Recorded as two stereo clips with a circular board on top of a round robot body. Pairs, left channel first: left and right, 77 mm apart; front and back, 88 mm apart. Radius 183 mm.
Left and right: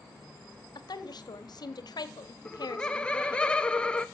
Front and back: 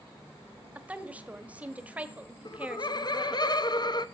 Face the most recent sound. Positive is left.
turn(degrees=15)